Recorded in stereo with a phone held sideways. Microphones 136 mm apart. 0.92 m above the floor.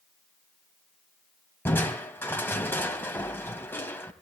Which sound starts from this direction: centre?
Crushing, at 1.6 s.